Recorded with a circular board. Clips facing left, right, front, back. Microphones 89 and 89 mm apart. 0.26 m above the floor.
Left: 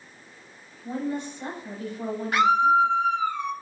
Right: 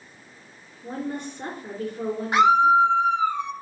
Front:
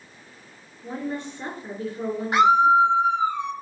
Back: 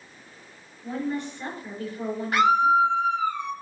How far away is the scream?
About 1.1 m.